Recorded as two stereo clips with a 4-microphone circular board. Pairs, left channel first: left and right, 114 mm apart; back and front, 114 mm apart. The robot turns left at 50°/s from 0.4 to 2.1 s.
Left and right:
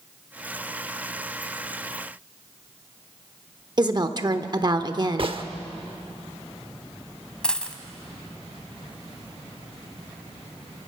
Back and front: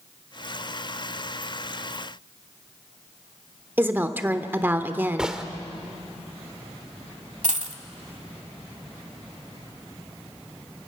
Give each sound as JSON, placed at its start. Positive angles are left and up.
{"t": 3.8, "sound": "a woman speaking", "azimuth_deg": -65, "distance_m": 0.9}
{"t": 5.2, "sound": "a gunshot", "azimuth_deg": -80, "distance_m": 1.0}
{"t": 7.4, "sound": "a dropped coin", "azimuth_deg": 10, "distance_m": 1.0}